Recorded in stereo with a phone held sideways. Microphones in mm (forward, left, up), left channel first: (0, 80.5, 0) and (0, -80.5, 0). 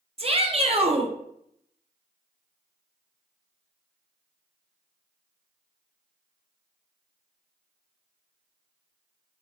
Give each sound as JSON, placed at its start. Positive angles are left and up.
{"t": 0.2, "sound": "a shout", "side_deg": -40, "distance_m": 0.5}